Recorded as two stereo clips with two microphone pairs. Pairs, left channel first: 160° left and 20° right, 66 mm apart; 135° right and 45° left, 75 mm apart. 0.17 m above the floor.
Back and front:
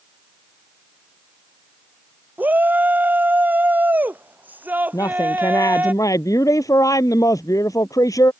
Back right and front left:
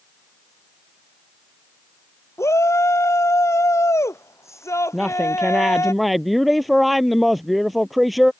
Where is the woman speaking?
135° left.